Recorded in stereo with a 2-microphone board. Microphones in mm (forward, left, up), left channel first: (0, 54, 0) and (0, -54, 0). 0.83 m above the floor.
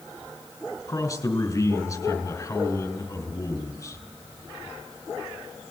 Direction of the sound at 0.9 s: 30° left (ahead or behind).